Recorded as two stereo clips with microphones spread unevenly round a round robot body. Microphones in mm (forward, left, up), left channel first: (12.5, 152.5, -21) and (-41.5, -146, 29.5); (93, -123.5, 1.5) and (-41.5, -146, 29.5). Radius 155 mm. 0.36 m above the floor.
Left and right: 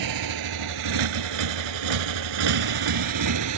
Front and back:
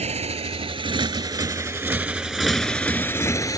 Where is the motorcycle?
130° right; by 3.6 s 60° right.